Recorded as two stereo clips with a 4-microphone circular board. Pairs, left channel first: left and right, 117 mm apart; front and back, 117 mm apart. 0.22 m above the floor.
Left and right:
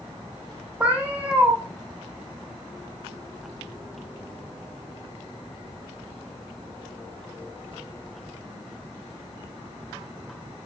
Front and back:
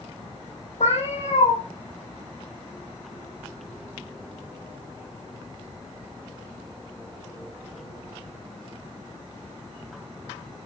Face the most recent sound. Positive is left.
turn(degrees=-10)